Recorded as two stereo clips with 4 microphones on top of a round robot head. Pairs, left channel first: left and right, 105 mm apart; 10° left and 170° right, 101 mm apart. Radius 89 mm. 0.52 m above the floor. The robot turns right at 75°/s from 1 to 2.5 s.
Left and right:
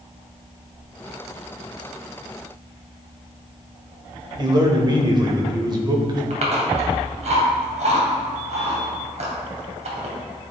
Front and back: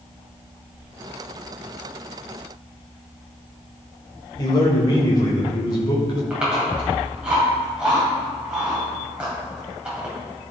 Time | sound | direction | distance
4.4 | a man speaking | 45° right | 2.5 m
6.3 | chewing | 90° right | 2.5 m